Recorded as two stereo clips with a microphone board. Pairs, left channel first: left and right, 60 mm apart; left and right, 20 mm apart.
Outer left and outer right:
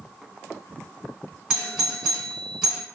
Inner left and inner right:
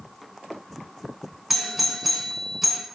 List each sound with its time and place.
1.5 s a doorbell: 10° right (ahead or behind), 1.7 m